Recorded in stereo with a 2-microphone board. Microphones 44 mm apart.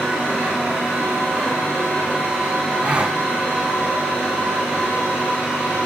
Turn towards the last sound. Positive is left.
turn(degrees=-30)  # may be behind; listen again after turning